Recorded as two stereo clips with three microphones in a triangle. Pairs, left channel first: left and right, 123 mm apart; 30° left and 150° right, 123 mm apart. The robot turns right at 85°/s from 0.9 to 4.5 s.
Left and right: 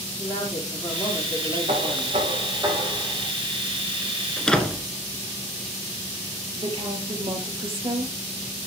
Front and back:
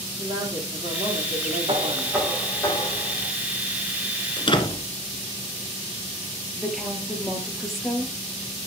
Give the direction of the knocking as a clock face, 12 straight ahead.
4 o'clock.